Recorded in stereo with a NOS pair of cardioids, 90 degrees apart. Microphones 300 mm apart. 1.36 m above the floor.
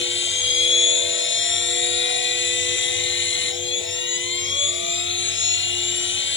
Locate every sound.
0.0 s a machine running: 40° left